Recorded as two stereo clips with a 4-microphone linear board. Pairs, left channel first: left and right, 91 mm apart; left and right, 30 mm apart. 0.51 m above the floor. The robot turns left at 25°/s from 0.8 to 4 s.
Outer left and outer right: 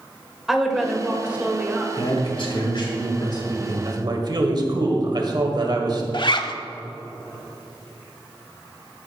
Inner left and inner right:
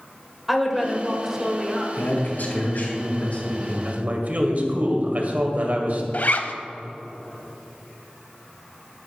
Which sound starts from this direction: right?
A man speaking, at 3.9 s.